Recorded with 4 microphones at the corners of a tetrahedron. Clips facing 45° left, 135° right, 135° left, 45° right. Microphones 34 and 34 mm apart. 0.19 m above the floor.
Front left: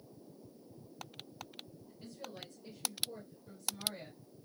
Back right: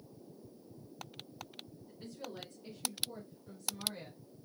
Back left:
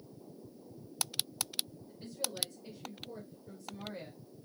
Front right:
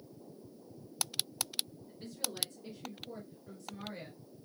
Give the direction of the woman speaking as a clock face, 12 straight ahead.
3 o'clock.